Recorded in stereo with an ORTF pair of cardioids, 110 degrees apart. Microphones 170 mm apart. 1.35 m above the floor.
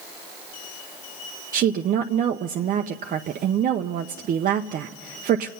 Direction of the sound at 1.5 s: 55° right.